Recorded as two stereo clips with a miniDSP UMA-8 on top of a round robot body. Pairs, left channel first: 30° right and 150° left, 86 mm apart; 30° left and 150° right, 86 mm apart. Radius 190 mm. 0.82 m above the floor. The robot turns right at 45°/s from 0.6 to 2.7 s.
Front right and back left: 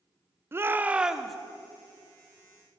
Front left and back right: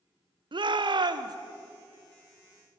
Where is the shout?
150° right, 1.0 m; by 1.4 s 115° right, 1.0 m.